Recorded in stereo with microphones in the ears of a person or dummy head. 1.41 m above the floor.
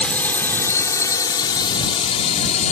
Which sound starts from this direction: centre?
A drone, at 0.0 s.